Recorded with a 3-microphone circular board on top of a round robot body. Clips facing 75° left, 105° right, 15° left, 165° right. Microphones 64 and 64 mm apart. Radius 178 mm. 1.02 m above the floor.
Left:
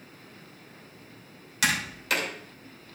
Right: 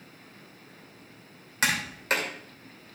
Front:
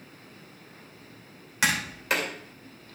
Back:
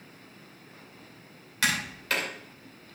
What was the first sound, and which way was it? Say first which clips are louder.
Tapping: even, front 2 dB; 55° right.